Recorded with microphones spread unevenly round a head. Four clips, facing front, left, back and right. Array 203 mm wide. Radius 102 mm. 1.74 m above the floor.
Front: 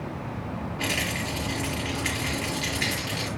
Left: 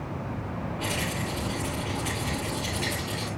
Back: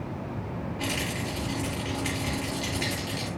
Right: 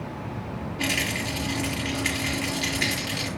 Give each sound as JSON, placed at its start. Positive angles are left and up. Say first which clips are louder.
{"t": 0.8, "sound": "a rattle", "louder": "right 4 dB, front 2 dB", "azimuth_deg": -80, "distance_m": 5.5}